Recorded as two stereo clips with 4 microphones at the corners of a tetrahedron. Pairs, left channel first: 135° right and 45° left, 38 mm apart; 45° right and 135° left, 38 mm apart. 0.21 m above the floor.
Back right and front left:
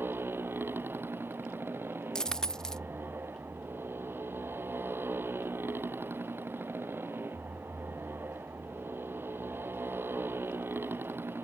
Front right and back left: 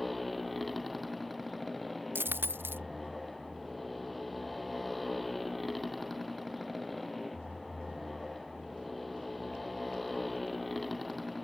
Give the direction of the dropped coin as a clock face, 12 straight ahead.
7 o'clock.